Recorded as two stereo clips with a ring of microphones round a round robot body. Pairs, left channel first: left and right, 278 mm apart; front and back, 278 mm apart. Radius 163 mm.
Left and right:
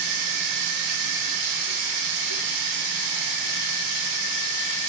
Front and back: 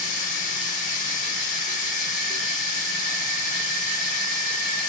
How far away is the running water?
About 3.5 m.